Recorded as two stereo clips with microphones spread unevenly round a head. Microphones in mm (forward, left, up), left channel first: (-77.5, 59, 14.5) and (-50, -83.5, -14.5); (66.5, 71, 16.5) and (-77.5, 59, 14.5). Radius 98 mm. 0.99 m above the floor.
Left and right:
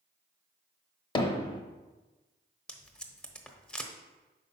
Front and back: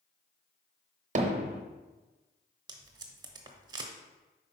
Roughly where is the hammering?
Behind left.